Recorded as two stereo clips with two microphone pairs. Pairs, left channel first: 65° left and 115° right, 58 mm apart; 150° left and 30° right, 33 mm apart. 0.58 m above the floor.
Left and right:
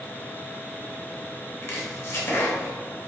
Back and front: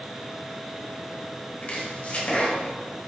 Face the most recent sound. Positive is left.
turn(degrees=105)